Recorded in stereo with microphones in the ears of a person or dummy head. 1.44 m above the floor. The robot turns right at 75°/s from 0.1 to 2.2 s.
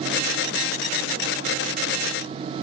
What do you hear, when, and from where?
Only background noise.